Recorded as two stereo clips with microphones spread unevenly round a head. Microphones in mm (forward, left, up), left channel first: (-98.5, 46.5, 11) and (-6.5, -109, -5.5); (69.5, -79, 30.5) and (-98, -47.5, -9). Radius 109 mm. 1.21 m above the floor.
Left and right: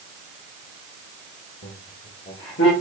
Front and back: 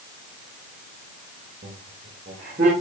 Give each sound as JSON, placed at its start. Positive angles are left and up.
{"t": 1.6, "sound": "laughter", "azimuth_deg": 130, "distance_m": 2.0}